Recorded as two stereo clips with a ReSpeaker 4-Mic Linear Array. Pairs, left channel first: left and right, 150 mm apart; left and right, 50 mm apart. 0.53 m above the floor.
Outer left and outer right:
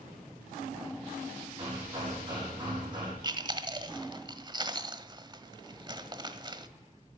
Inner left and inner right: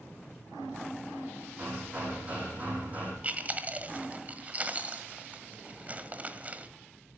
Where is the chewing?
30° right (ahead or behind), 1.3 m.